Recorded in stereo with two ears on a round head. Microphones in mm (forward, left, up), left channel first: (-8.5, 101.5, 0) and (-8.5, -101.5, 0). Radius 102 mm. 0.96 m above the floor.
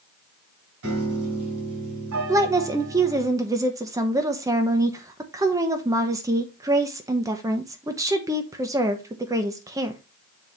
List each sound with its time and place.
0.8 s a piano: 75° right (ahead or behind), 3.5 m
2.3 s a woman speaking: 15° right (ahead or behind), 0.8 m